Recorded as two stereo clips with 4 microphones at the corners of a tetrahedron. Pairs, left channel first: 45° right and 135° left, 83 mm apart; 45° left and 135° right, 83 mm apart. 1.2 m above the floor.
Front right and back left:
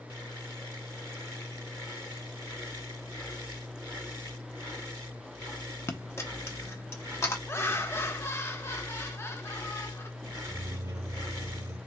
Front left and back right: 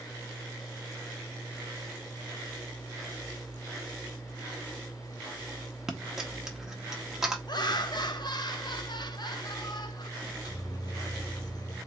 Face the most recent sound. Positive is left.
turn(degrees=85)